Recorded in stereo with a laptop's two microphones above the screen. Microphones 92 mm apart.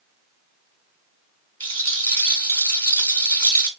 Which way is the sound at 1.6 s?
20° left (ahead or behind).